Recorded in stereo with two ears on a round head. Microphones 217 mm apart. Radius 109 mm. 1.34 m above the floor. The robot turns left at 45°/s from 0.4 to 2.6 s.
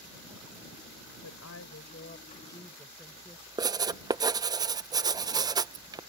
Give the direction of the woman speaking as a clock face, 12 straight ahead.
10 o'clock.